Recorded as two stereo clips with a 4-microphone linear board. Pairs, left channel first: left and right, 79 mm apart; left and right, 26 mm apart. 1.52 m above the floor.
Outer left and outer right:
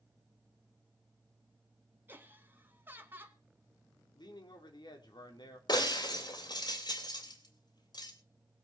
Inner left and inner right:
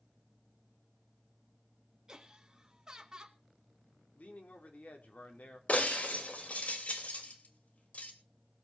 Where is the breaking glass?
65° left (ahead or behind), 3 m.